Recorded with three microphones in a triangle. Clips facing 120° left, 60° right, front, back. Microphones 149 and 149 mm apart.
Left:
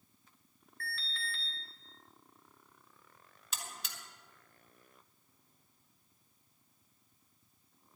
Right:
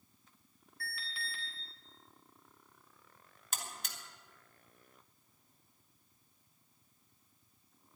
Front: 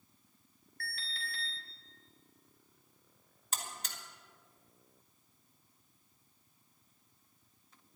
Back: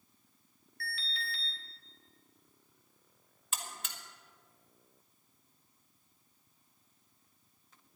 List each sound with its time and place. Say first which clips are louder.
0.8 s an alarm: left 2 dB, back 3 dB; 15° left, 3 m
3.5 s a buzzer: right 2 dB, front 1 dB; 40° right, 1.8 m